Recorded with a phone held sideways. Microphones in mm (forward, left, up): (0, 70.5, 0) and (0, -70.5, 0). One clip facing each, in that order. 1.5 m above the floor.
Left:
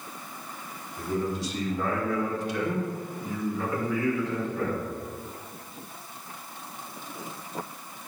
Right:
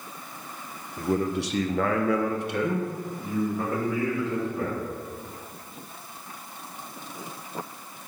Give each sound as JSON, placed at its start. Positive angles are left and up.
{"t": 1.0, "sound": "a man speaking", "side_deg": -50, "distance_m": 1.2}